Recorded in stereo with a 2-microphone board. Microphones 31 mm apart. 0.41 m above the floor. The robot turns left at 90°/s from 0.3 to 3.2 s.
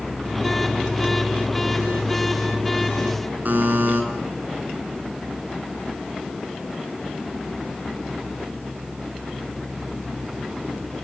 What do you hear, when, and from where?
3.5 s a buzzer: 65° right (ahead or behind), 5 m